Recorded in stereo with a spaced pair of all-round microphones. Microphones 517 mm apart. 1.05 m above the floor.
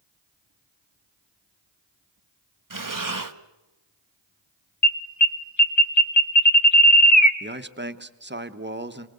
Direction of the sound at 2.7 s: 40° right (ahead or behind).